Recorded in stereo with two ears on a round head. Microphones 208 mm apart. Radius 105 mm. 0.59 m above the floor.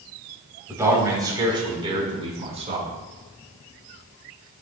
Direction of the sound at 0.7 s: 15° right (ahead or behind).